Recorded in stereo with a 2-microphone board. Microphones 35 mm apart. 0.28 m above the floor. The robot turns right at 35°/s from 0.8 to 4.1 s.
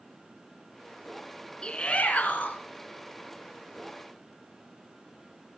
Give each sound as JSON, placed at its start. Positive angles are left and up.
{"t": 1.6, "sound": "a shout", "azimuth_deg": 25, "distance_m": 3.0}